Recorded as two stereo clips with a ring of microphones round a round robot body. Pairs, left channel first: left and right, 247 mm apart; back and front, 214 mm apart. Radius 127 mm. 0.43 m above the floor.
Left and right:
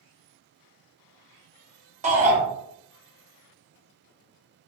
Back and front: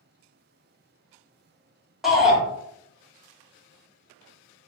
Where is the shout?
85° right, 0.9 m.